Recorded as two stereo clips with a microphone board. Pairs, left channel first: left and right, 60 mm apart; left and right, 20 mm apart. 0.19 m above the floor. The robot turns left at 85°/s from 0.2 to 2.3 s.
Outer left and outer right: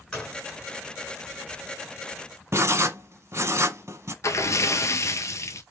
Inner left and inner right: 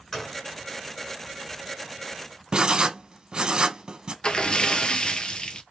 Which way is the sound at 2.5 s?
45° right (ahead or behind).